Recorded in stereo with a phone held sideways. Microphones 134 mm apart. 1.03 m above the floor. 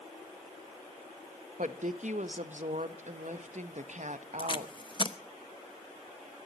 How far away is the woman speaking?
About 1.1 m.